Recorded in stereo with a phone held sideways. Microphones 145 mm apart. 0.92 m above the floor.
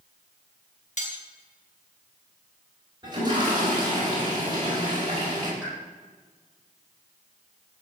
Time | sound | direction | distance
1.0 | cutlery clinking | 55° left (ahead or behind) | 3 m
3.0 | a toilet flushing | 30° right (ahead or behind) | 6 m
5.6 | a pop | 5° right (ahead or behind) | 7 m